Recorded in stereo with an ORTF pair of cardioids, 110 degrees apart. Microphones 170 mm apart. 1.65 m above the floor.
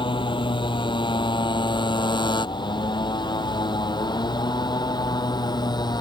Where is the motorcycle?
30° left; by 6.0 s 25° left.